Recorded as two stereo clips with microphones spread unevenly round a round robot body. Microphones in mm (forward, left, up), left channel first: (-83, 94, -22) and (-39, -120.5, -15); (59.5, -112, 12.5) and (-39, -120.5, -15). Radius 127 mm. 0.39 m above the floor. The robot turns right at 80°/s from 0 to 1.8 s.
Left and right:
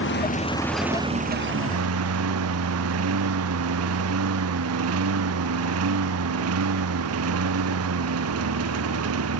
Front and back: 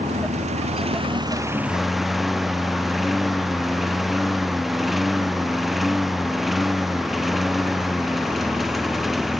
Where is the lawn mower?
130° left; by 9.4 s 85° right.